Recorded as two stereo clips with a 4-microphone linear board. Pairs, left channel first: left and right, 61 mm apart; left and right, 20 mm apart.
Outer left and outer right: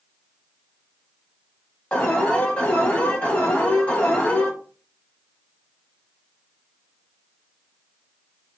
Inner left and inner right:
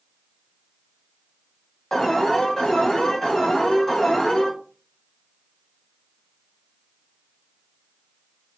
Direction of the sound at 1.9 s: 25° left (ahead or behind).